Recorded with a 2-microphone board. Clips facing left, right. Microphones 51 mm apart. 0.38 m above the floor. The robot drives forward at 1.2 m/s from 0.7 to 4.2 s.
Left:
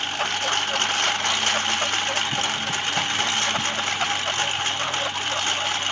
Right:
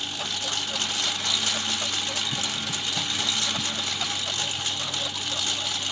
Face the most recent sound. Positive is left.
turn(degrees=45)  # may be behind; listen again after turning